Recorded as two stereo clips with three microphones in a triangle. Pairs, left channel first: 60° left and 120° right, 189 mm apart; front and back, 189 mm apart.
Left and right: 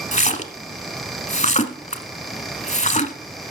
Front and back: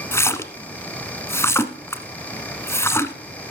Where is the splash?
70° left, 0.9 m.